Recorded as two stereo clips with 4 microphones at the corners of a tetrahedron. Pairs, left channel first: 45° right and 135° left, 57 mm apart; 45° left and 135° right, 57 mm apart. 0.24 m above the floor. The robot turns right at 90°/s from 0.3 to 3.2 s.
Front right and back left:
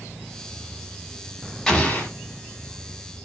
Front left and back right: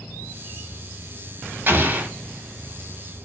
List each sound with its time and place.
1.7 s an explosion: 120° right, 0.9 m; by 2.1 s 80° right, 0.9 m